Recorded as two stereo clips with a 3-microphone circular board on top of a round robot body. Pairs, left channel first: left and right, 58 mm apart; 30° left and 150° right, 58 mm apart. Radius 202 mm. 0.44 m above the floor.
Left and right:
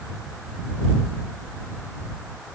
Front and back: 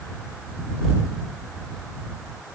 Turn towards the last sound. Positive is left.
No sound to turn to.